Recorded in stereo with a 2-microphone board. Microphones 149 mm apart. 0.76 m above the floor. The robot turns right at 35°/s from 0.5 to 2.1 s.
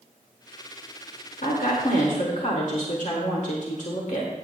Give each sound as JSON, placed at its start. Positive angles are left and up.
{"t": 1.4, "sound": "a woman speaking", "side_deg": 75, "distance_m": 2.0}